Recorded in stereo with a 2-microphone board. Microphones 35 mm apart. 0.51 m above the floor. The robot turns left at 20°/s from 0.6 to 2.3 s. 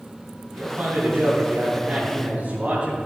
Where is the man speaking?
120° right, 3 m; by 3.0 s 155° right, 3 m.